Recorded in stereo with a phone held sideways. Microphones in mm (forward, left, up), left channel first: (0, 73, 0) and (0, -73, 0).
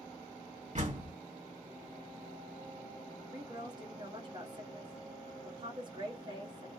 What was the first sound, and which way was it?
A door slam, 50° right (ahead or behind).